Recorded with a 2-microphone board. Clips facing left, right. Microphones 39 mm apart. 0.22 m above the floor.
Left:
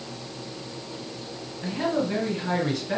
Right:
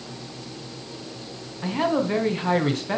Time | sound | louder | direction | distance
1.6 | a man speaking | right 3 dB | 45° right (ahead or behind) | 1.8 m